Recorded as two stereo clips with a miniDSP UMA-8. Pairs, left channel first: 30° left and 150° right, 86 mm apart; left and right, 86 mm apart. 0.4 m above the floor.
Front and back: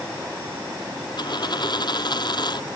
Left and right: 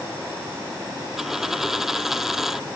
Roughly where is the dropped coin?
Ahead.